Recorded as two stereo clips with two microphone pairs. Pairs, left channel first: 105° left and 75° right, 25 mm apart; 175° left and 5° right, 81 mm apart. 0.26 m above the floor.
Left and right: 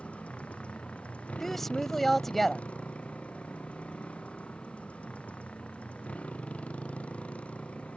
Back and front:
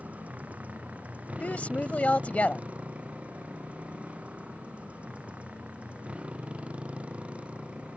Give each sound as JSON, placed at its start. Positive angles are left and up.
{"t": 0.0, "sound": "a motorcycle", "azimuth_deg": 65}
{"t": 1.4, "sound": "a woman speaking", "azimuth_deg": 165}